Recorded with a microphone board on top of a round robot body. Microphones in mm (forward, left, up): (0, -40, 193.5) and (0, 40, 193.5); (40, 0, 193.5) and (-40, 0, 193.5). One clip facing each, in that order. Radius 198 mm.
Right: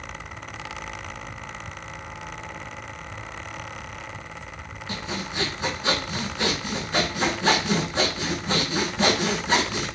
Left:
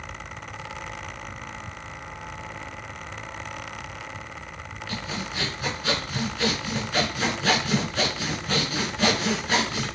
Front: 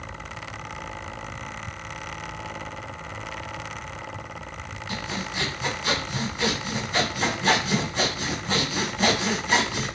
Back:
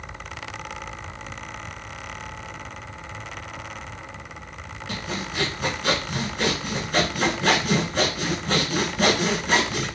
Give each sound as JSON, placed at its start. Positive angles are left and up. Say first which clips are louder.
{"t": 4.9, "sound": "sawing", "louder": "right 1 dB, back 1 dB", "azimuth_deg": -150, "distance_m": 3.5}